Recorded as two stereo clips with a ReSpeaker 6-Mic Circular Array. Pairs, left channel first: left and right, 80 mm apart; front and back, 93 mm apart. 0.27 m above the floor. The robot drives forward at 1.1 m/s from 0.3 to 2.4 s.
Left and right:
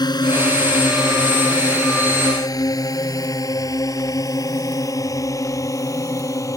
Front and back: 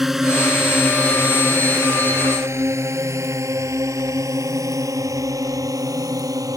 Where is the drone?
95° left; by 6.6 s 135° left.